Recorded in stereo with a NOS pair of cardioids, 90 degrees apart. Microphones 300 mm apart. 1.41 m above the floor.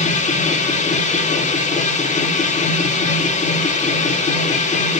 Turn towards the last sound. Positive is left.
turn(degrees=25)